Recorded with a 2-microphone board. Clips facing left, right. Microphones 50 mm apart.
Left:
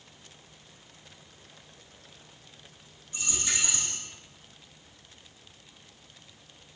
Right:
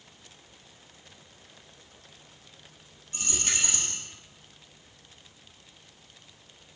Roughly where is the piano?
I don't hear a piano.